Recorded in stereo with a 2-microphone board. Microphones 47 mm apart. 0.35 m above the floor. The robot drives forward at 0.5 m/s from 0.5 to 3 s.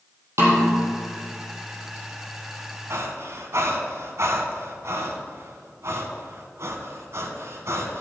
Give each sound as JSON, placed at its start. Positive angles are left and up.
{"t": 0.4, "sound": "a snare drum", "side_deg": -70, "distance_m": 4.0}
{"t": 2.9, "sound": "breathing", "side_deg": -70, "distance_m": 1.4}